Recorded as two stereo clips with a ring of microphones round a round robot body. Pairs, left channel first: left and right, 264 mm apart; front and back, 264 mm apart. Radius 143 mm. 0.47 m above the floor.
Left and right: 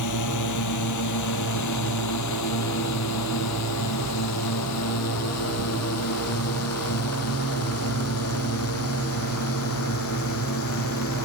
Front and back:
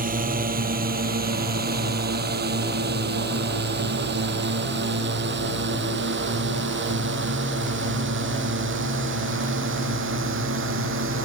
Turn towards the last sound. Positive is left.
turn(degrees=140)